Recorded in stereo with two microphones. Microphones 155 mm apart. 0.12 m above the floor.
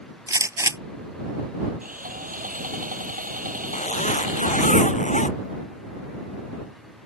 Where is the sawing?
60° right (ahead or behind).